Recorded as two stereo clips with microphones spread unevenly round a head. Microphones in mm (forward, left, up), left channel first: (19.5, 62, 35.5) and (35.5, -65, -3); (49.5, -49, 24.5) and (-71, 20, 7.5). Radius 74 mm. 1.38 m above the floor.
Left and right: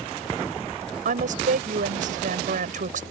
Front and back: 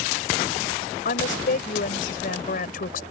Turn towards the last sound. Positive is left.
turn(degrees=-55)